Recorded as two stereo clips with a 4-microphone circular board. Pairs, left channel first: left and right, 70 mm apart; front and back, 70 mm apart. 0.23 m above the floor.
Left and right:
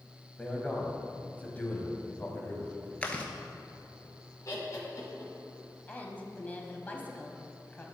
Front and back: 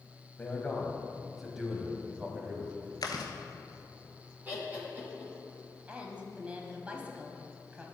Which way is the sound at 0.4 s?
35° left.